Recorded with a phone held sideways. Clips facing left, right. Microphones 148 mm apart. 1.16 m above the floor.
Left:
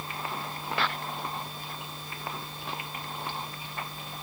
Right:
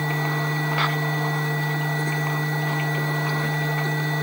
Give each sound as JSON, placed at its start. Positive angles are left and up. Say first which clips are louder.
{"t": 0.0, "sound": "a machine running", "louder": "right 10 dB", "side_deg": -85}